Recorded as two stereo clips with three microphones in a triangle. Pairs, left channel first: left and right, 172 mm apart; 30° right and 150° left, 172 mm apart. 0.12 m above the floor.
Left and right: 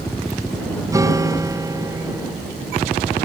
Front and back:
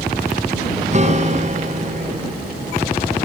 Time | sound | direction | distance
0.9 | a guitar | 160° right | ?